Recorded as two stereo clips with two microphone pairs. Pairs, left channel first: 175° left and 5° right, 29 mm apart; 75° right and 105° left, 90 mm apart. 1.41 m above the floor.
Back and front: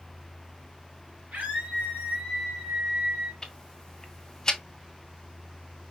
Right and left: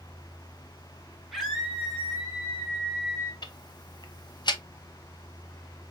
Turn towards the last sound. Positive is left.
turn(degrees=-115)